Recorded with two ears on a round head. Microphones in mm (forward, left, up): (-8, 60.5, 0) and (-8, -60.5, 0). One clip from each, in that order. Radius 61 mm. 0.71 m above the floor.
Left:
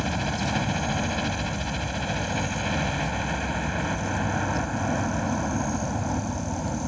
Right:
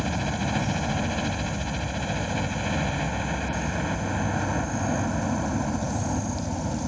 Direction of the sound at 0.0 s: 15° left (ahead or behind).